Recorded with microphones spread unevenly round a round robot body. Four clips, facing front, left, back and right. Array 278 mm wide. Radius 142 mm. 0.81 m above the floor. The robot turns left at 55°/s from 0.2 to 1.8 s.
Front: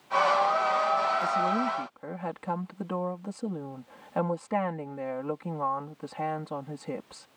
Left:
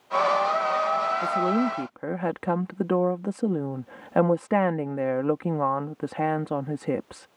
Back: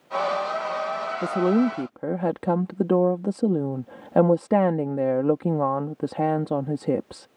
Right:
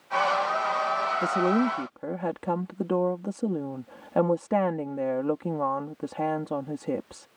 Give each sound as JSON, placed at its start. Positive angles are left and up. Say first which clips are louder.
{"t": 1.2, "sound": "a woman speaking", "louder": "even, back 6 dB", "azimuth_deg": -155}